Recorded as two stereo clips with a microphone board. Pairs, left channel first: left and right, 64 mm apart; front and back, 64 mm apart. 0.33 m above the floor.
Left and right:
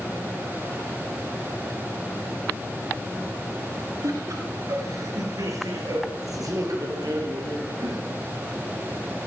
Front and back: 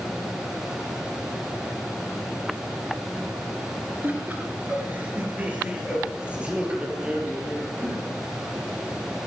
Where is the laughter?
120° right, 4 m; by 8.0 s 105° right, 5.5 m.